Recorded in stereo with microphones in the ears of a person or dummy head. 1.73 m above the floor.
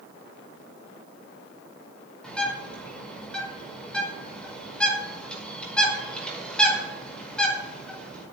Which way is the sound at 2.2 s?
5° left (ahead or behind).